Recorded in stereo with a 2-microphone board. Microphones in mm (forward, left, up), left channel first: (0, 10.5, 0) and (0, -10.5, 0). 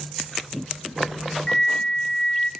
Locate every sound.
1.5 s a flute: 25° left (ahead or behind), 0.6 m